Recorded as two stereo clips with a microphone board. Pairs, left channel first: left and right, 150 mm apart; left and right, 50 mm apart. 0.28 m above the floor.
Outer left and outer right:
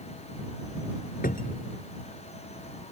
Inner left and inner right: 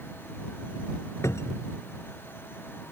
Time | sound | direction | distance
1.2 | a cupboard door | 70° left (ahead or behind) | ?